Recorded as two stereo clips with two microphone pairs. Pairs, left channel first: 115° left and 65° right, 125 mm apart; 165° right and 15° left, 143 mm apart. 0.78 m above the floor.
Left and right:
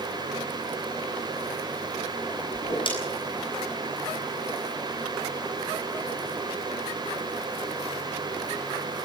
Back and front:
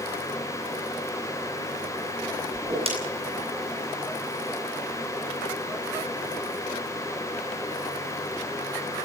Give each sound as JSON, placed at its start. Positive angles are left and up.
{"t": 2.5, "sound": "a whoosh", "azimuth_deg": 65, "distance_m": 7.5}